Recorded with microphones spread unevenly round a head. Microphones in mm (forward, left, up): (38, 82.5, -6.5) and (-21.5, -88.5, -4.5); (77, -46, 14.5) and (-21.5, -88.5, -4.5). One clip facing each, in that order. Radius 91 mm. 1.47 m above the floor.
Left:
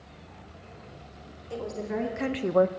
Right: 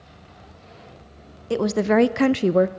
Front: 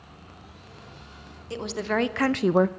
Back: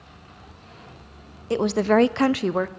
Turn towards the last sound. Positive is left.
turn(degrees=-35)